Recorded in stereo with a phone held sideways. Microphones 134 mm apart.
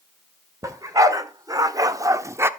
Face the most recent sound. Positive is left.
turn(degrees=-20)  # may be behind; listen again after turning